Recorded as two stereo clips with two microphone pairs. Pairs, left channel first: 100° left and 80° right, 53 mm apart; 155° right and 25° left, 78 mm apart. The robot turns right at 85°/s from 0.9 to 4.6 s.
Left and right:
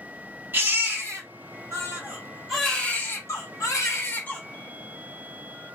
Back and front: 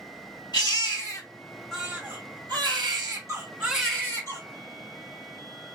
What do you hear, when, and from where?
0.5 s a baby crying: 130° right, 2 m; by 4.4 s 165° left, 2 m